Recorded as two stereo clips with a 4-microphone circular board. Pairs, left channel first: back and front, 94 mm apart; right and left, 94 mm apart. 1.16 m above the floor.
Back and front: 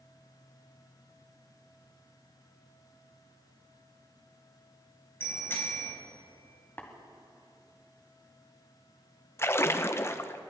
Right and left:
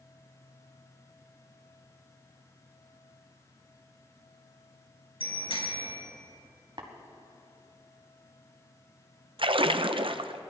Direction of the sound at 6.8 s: 115° left.